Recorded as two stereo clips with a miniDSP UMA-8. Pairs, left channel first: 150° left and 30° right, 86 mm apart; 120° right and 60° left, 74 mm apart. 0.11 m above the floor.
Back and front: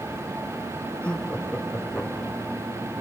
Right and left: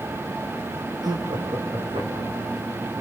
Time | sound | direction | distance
1.0 | laughter | 75° left | 3.5 m